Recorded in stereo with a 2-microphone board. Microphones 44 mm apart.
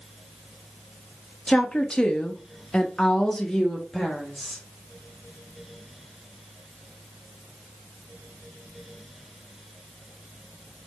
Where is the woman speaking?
20° left (ahead or behind), 1.0 m; by 4.6 s 5° left (ahead or behind), 1.2 m.